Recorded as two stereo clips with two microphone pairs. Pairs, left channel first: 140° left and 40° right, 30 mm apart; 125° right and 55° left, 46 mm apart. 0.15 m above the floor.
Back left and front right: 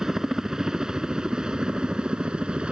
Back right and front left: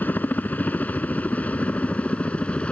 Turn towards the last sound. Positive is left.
turn(degrees=-75)